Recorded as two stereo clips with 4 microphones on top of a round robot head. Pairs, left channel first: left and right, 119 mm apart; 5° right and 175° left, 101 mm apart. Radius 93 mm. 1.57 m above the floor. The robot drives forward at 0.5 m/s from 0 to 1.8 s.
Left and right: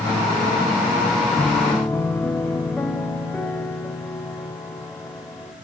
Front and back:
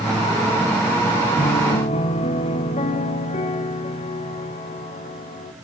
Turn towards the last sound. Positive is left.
turn(degrees=10)